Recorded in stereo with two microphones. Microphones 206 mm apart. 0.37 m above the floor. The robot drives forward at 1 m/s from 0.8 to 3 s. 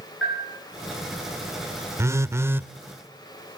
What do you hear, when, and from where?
0.2 s a bell: 70° left (ahead or behind), 10 m
2.0 s a phone buzzing: 15° right (ahead or behind), 0.5 m; by 2.7 s 10° right (ahead or behind), 0.7 m